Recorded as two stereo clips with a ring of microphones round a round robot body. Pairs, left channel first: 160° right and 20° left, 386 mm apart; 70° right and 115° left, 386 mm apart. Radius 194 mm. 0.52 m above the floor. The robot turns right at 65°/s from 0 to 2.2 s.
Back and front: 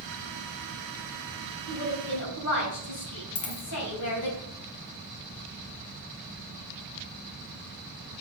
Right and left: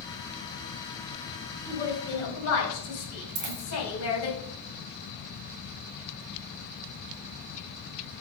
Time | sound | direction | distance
1.7 | a woman speaking | 150° right | 3.5 m
3.4 | a dropped coin | 175° left | 2 m